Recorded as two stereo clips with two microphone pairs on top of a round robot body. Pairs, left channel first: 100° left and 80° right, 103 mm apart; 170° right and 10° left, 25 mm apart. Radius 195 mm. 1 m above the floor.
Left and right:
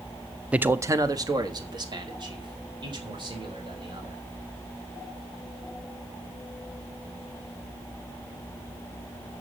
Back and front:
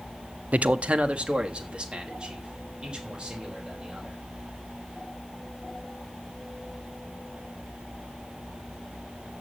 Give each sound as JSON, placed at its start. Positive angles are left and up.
{"t": 0.5, "sound": "a man speaking", "azimuth_deg": 0, "distance_m": 0.7}